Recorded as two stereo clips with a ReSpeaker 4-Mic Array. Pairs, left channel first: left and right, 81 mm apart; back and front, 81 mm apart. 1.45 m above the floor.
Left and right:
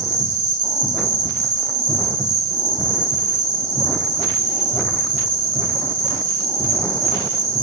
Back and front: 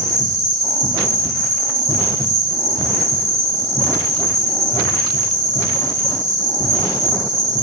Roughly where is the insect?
Ahead right.